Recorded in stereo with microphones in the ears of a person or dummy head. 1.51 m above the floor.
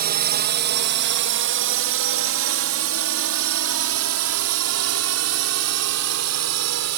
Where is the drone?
45° right (ahead or behind); by 7.0 s 75° right (ahead or behind).